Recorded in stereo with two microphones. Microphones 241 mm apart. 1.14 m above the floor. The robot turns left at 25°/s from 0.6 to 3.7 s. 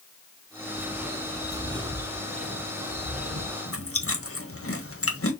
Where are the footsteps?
5° right (ahead or behind), 1.2 m; by 3.6 s 50° right (ahead or behind), 2 m.